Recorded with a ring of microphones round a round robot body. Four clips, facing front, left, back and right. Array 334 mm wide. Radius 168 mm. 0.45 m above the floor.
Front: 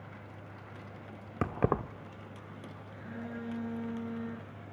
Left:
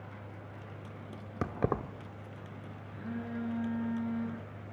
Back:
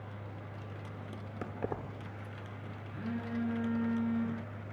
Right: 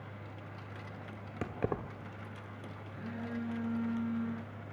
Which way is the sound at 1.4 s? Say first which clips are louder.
Left 4 dB, front 8 dB; 20° left.